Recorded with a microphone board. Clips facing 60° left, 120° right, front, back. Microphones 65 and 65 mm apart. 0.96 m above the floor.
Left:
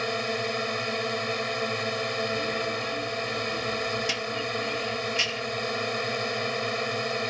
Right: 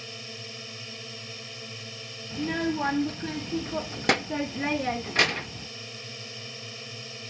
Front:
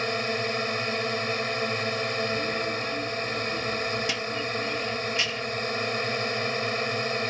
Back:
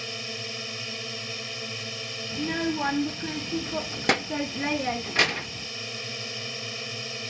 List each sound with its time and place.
0.0 s a drone: 40° left
2.3 s a child speaking: 150° right